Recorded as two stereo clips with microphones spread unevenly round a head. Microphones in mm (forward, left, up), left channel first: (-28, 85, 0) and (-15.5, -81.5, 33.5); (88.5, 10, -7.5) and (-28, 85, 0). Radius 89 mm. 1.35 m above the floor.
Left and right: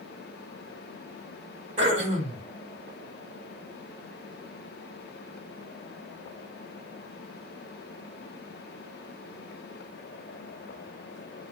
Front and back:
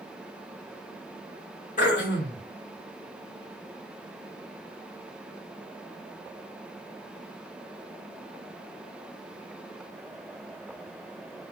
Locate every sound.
1.8 s throat clearing: 60° right, 1.8 m